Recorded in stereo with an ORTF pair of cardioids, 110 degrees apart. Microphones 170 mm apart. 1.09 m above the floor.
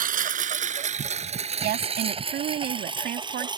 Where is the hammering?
I don't hear hammering.